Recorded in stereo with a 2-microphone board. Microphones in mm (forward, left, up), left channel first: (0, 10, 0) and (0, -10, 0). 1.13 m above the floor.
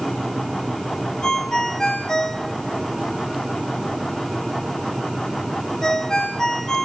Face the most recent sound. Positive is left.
turn(degrees=45)  # may be behind; listen again after turning